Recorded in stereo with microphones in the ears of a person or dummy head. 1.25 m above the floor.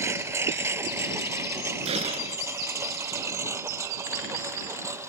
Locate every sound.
0.0 s a lawn mower: 10° right (ahead or behind)
1.9 s a gunshot: 35° right (ahead or behind)